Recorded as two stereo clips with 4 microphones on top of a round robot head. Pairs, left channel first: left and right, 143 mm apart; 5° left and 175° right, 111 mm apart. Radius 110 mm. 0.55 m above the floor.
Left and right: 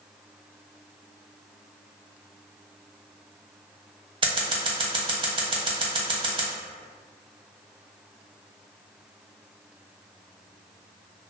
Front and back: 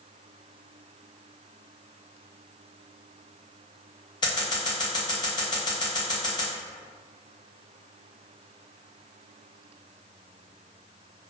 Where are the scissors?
40° right, 0.8 m.